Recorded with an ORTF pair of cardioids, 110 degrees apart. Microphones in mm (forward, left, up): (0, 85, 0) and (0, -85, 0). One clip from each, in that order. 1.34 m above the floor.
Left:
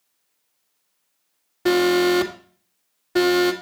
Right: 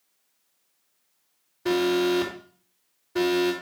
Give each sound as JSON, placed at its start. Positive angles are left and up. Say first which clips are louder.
{"t": 1.6, "sound": "an alarm", "louder": "left 5 dB", "azimuth_deg": 70, "distance_m": 2.0}